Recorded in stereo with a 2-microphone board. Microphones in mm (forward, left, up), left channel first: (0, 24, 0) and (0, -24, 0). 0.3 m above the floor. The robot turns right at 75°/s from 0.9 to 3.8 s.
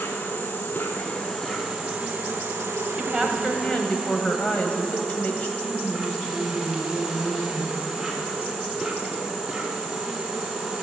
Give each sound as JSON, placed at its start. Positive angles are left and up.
{"t": 0.0, "sound": "an insect", "azimuth_deg": 140, "distance_m": 1.7}
{"t": 3.0, "sound": "a woman speaking", "azimuth_deg": -20, "distance_m": 1.2}
{"t": 5.6, "sound": "a woman speaking", "side_deg": 20, "distance_m": 2.5}